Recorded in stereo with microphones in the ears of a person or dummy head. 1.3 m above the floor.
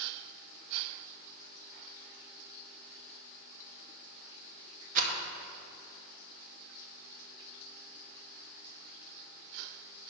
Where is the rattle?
45° right (ahead or behind), 1.1 m.